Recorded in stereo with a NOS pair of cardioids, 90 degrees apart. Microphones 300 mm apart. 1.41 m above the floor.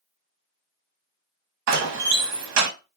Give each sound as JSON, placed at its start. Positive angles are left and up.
{"t": 1.7, "sound": "a door slam", "azimuth_deg": -65, "distance_m": 0.9}